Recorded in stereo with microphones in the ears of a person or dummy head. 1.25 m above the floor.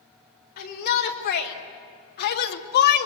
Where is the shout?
50° left (ahead or behind), 4 m; by 3.1 s 55° left (ahead or behind), 1.2 m.